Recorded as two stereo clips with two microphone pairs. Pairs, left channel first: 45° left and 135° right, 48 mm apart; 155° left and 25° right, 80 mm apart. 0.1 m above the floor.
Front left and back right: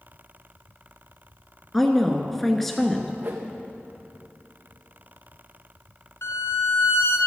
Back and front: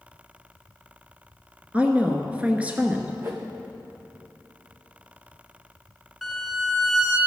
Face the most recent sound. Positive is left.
turn(degrees=60)